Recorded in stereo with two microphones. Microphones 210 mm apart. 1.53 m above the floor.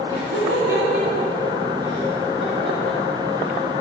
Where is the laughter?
70° right (ahead or behind), 4 m; by 3.6 s 30° right (ahead or behind), 2.5 m.